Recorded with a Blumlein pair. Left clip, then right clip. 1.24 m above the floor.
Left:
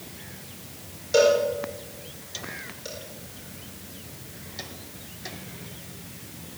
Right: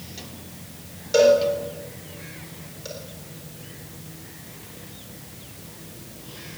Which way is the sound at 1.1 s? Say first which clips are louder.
Right 3 dB; 5° right.